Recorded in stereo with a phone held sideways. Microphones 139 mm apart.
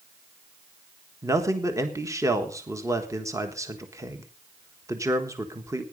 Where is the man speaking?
25° right (ahead or behind), 1.5 m.